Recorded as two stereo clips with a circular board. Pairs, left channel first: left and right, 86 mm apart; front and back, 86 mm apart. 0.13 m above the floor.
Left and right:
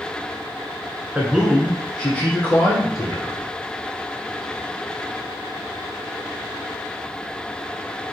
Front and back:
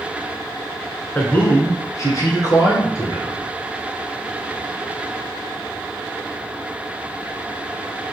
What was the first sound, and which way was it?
A man speaking, 45° right.